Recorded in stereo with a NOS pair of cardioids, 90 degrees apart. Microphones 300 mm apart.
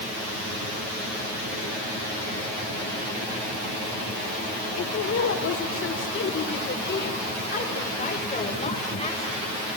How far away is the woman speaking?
About 5 m.